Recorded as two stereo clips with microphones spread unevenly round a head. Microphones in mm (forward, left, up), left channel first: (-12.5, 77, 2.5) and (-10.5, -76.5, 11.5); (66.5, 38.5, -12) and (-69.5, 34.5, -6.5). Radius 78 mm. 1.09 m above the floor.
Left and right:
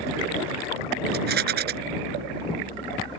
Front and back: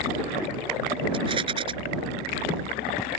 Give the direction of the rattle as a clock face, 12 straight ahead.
4 o'clock.